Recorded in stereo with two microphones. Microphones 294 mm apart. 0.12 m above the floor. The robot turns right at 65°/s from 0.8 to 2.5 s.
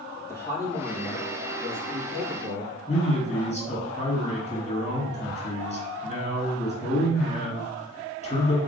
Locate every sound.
0.3 s a man speaking: 170° left, 2.5 m; by 2.8 s 80° right, 2.5 m
2.9 s a man speaking: 25° left (ahead or behind), 1.8 m